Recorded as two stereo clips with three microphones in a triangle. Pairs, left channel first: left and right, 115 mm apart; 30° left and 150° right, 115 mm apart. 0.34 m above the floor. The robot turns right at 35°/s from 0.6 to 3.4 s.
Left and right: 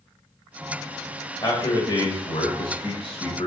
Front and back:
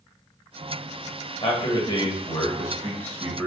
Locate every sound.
1.4 s a man speaking: 40° left, 1.1 m; by 3.5 s 110° left, 1.1 m